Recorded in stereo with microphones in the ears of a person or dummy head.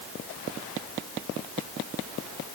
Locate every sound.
Only background noise.